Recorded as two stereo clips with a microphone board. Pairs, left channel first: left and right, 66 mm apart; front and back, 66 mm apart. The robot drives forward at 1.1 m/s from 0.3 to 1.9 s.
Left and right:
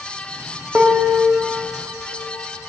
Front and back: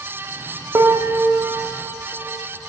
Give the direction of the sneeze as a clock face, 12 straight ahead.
I don't hear a sneeze.